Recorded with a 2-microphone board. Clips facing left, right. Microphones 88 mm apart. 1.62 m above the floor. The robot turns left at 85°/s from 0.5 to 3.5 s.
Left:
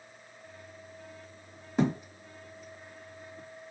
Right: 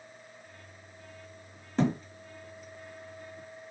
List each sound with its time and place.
1.8 s a thud: 5° left (ahead or behind), 1.1 m; by 2.0 s 15° left (ahead or behind), 1.1 m